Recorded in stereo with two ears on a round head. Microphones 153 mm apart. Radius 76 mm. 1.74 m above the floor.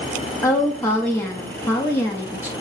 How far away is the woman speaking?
About 0.6 m.